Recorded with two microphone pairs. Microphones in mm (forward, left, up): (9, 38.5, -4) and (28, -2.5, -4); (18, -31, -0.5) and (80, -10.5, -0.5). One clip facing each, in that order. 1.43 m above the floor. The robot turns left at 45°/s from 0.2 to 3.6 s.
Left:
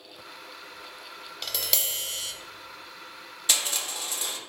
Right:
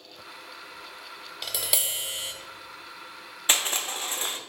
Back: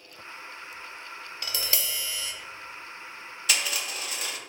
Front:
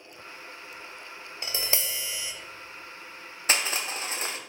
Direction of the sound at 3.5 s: 15° right.